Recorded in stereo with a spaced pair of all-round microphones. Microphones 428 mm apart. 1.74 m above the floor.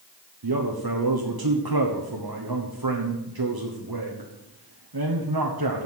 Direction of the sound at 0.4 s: 60° right (ahead or behind).